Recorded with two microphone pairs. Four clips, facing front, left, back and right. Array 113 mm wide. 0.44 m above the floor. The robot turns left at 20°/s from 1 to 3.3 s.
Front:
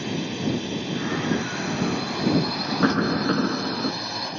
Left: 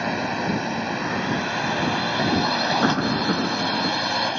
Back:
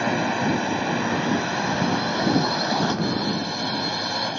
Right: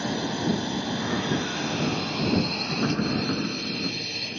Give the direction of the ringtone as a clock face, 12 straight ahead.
I don't hear a ringtone.